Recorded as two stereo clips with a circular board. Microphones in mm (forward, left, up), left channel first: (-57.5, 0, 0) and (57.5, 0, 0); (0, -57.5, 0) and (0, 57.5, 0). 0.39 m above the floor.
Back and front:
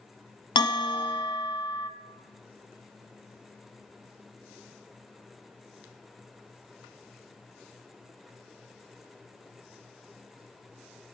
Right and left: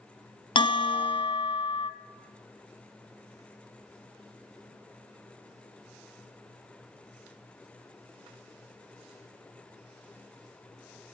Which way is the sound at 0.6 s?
135° right.